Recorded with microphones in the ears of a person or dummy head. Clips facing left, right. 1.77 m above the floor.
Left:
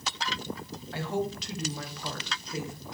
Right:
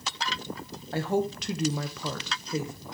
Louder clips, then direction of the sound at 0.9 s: Right 4 dB; 40° right (ahead or behind).